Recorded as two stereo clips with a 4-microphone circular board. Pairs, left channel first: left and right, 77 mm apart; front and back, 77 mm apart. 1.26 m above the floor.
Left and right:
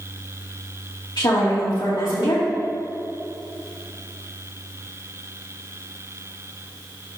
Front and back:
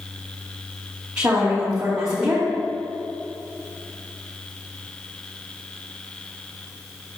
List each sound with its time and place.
1.2 s a woman speaking: 100° left, 2 m